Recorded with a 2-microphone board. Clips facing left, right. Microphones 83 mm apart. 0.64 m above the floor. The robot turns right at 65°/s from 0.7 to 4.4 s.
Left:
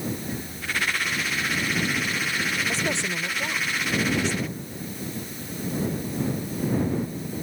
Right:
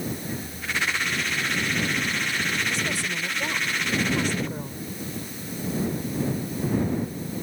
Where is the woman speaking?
135° left; by 4.8 s 110° right.